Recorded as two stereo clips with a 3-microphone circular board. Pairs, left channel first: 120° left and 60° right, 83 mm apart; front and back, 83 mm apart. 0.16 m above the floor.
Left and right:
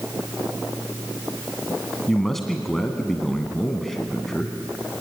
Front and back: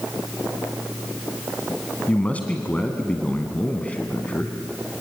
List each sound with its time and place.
2.1 s a man speaking: 35° left, 1.7 m